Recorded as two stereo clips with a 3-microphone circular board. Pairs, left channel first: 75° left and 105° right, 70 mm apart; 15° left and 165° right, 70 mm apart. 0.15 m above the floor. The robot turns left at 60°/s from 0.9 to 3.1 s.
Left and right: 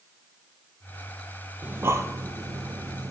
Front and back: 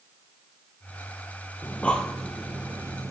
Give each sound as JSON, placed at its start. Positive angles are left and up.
{"t": 1.6, "sound": "breathing", "azimuth_deg": -40, "distance_m": 0.7}